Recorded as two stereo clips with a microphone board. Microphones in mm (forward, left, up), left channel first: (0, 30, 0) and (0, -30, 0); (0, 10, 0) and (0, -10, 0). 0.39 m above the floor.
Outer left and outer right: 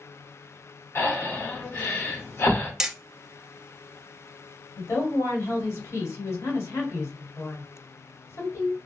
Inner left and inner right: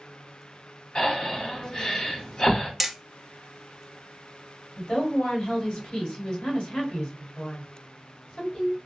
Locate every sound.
0.9 s breathing: 40° left (ahead or behind), 1.4 m
2.8 s hammering: 10° right (ahead or behind), 0.6 m
4.8 s a woman speaking: 50° left (ahead or behind), 2.0 m